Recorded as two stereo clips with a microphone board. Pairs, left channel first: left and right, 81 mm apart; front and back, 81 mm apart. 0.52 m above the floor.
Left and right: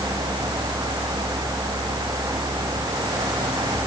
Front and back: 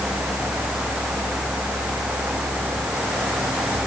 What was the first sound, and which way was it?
Only background noise.